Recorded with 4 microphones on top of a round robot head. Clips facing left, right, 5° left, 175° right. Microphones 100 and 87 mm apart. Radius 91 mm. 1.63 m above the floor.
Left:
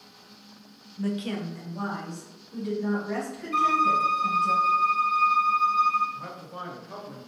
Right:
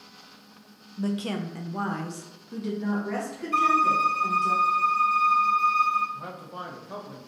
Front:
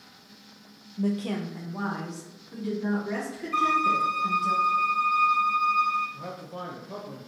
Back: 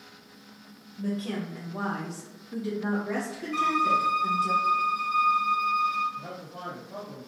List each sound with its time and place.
1.0 s a woman speaking: 25° right, 0.5 m; by 4.5 s 120° right, 1.9 m
3.5 s a violin: 45° right, 0.9 m
6.1 s a man speaking: 15° right, 0.6 m